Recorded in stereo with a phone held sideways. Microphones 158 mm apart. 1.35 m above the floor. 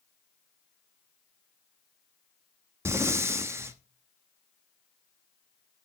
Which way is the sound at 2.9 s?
15° right (ahead or behind).